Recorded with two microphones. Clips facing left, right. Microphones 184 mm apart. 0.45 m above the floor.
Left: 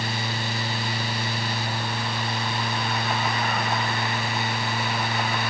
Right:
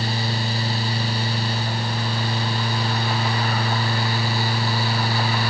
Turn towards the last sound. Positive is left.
No sound to turn to.